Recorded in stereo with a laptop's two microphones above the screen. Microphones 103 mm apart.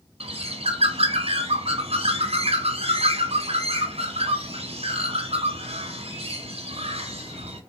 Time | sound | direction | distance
0.2 | a bird | 75° right (ahead or behind) | 0.8 m